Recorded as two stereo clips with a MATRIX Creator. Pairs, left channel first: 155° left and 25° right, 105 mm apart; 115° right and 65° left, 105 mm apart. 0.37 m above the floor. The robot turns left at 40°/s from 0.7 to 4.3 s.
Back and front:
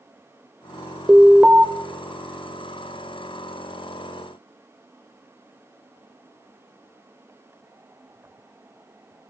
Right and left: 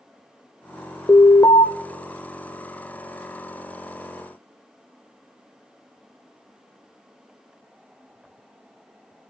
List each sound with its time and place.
1.1 s an alarm: 80° right, 1.0 m; by 1.6 s 105° right, 1.0 m